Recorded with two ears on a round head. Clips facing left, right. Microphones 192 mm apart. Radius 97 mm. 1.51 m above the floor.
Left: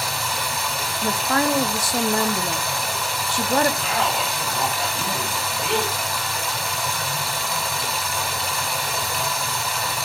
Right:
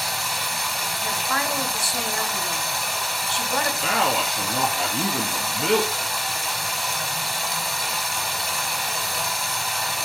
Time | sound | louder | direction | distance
0.0 | running water | left 3 dB | 65° left (ahead or behind) | 2.5 m
1.0 | a woman speaking | left 8 dB | 40° left (ahead or behind) | 1.0 m
3.8 | a man speaking | right 1 dB | 65° right (ahead or behind) | 2 m